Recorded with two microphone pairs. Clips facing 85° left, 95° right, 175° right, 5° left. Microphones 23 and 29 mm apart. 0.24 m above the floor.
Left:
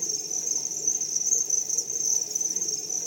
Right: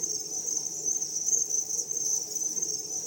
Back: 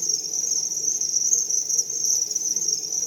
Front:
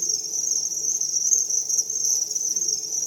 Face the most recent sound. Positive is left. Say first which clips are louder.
# left 3 dB, even
turn(degrees=120)